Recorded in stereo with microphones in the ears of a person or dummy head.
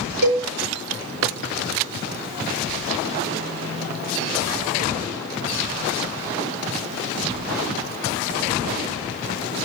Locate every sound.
0.2 s a cowbell: 70° right (ahead or behind), 6 m